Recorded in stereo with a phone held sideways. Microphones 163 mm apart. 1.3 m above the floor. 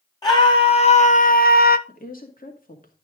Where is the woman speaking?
55° left (ahead or behind), 2 m.